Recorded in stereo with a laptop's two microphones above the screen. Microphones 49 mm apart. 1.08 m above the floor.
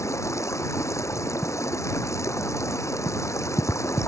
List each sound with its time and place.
0.0 s running water: 75° left (ahead or behind)